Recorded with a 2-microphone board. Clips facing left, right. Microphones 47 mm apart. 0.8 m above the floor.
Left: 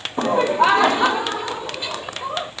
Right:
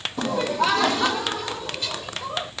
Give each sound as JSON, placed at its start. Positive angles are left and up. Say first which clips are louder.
{"t": 0.2, "sound": "laughter", "louder": "left 6 dB", "side_deg": 35}